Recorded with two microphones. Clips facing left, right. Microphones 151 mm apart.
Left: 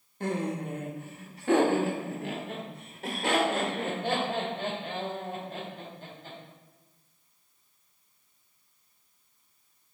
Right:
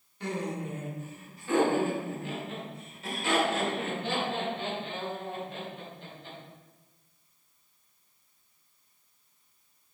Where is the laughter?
50° left (ahead or behind), 1.2 m; by 6.4 s 45° left (ahead or behind), 3.5 m.